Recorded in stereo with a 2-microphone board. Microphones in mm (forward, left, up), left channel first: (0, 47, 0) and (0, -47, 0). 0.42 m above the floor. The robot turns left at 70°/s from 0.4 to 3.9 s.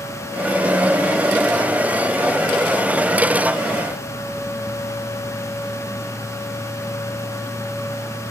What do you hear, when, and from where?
Only background noise.